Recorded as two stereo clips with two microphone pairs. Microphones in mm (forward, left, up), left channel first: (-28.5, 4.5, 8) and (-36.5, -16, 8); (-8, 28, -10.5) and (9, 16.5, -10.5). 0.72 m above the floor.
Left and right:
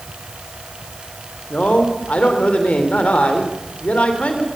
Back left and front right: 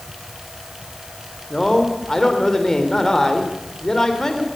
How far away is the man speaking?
About 3 m.